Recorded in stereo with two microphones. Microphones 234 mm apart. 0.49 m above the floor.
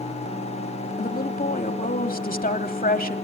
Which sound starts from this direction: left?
A woman speaking, at 1.0 s.